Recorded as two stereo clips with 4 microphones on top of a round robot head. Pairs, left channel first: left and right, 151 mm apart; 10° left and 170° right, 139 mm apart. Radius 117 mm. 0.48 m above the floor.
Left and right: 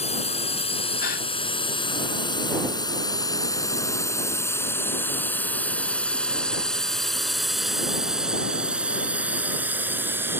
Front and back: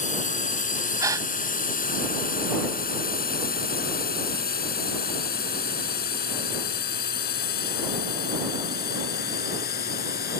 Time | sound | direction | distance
0.0 | a drone | 40° left | ?
1.0 | a gasp | 120° left | ?